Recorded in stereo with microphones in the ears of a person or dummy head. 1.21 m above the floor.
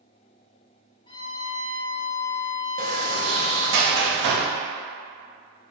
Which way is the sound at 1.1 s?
20° left (ahead or behind).